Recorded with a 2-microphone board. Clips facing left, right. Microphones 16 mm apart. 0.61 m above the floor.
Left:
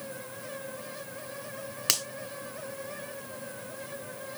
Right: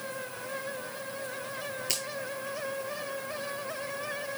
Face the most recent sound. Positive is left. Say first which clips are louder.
# left 6 dB
turn(degrees=85)